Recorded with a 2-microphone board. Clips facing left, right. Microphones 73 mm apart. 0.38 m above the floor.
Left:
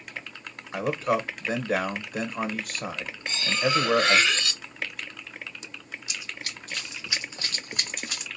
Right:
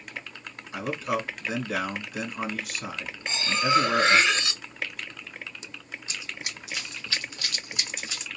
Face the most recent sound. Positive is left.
turn(degrees=60)  # may be behind; listen again after turning